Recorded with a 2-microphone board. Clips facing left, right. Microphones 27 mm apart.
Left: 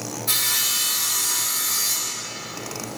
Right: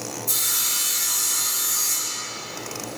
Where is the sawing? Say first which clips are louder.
Left 3 dB; 50° left (ahead or behind), 2.5 m.